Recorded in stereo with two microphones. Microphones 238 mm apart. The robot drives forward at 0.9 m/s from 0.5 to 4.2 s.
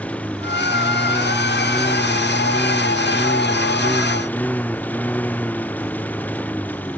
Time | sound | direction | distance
0.0 | a lawn mower | 5° left (ahead or behind) | ?